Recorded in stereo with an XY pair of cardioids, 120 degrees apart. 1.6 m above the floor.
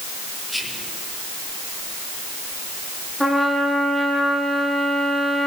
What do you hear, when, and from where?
0.5 s whispering: 10° left, 5.5 m
3.2 s a trumpet: 5° left, 8 m